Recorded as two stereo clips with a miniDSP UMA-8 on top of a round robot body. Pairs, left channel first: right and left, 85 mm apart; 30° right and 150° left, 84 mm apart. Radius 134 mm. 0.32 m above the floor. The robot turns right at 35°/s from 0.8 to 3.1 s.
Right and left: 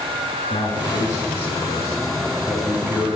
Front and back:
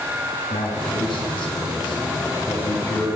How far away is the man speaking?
About 4 m.